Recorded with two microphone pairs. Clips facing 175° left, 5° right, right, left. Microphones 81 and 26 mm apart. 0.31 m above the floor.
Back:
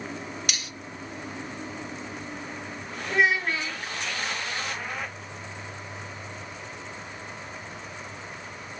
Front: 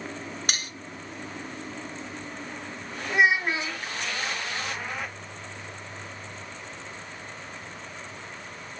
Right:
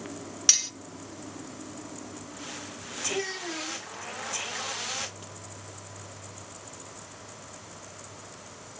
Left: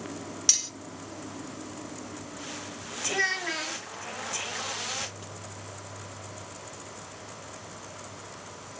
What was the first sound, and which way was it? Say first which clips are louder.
Cutlery clinking: front 2 dB, right 2 dB; 25° right.